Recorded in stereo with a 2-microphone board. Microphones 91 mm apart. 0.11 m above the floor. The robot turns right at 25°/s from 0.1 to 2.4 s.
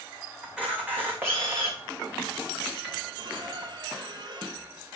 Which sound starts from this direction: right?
A squeak, at 3.2 s.